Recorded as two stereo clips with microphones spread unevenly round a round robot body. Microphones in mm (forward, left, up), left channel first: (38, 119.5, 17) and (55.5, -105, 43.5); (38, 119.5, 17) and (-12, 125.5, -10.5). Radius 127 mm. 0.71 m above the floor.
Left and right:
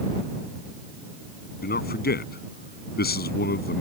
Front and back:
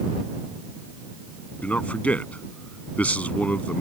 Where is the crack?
No crack in this recording.